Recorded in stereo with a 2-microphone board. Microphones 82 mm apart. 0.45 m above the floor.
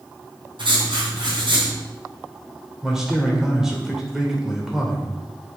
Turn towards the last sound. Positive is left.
turn(degrees=-5)  # may be behind; listen again after turning